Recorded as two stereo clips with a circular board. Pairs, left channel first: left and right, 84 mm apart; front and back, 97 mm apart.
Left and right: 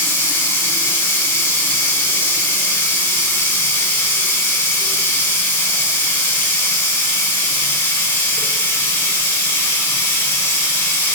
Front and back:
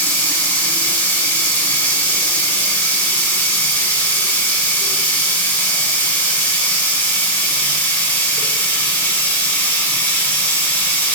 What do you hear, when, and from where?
0.0 s running water: 55° left, 1.3 m